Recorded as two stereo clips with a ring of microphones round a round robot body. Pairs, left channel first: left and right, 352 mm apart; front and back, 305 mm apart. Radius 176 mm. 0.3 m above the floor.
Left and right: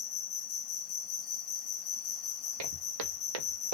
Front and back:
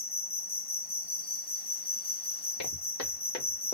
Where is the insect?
50° left, 1.0 m.